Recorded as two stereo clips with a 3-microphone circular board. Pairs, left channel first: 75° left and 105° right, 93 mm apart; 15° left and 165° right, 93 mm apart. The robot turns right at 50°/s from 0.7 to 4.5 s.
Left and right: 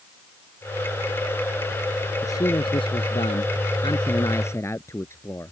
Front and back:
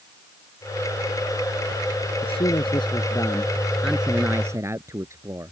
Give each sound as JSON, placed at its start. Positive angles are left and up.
{"t": 2.2, "sound": "a man speaking", "azimuth_deg": 20}